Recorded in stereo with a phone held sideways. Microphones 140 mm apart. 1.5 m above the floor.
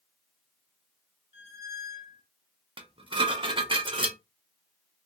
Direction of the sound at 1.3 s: 40° left (ahead or behind).